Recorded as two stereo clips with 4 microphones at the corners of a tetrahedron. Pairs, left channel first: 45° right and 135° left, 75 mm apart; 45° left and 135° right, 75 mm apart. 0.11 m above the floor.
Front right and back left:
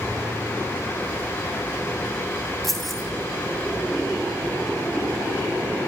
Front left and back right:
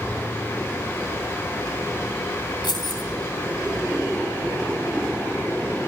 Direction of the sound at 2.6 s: 40° left.